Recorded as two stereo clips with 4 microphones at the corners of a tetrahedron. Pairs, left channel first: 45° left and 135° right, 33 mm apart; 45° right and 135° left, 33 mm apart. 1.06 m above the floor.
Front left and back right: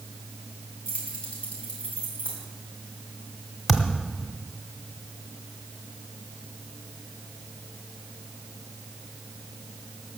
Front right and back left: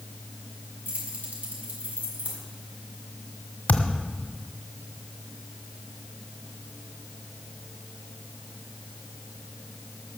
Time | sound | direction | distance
0.8 | keys jangling | 100° left | 5.5 m
3.7 | a thud | 45° right | 1.3 m